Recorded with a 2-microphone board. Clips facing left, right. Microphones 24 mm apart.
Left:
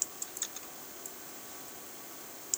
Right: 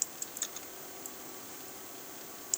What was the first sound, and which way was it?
Only background noise.